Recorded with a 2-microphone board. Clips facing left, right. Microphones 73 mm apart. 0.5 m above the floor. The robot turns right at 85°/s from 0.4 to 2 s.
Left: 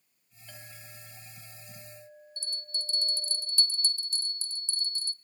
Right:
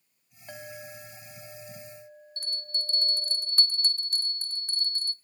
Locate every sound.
0.5 s a clink: 140° right, 2.5 m; by 3.4 s 10° right, 2.5 m
2.4 s a bell: 55° right (ahead or behind), 0.6 m